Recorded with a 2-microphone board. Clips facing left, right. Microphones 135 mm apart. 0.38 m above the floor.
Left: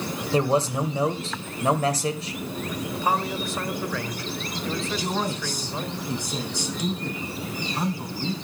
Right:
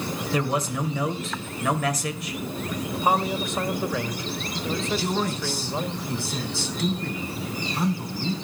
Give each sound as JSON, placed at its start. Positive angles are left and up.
{"t": 0.3, "sound": "a man speaking", "side_deg": 30, "distance_m": 1.9}
{"t": 3.0, "sound": "a man speaking", "side_deg": -20, "distance_m": 1.5}
{"t": 5.0, "sound": "a man speaking", "side_deg": 15, "distance_m": 3.5}